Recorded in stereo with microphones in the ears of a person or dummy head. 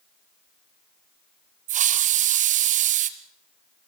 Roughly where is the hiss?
Right.